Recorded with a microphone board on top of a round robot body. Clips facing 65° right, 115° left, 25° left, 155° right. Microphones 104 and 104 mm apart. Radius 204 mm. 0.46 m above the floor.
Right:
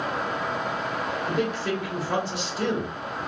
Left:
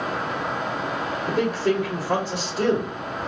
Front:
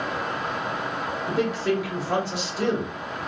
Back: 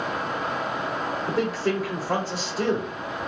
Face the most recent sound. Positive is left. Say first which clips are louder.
# left 6 dB, front 2 dB
turn(degrees=155)